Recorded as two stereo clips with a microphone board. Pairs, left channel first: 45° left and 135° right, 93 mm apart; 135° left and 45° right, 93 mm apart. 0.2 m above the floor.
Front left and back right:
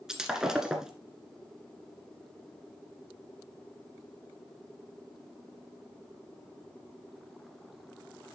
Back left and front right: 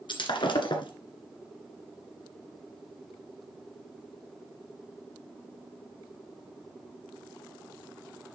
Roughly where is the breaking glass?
Behind left.